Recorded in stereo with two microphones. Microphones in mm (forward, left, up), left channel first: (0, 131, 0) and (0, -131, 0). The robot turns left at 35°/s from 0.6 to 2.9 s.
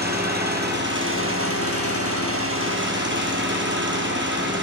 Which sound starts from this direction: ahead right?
An engine running, at 0.0 s.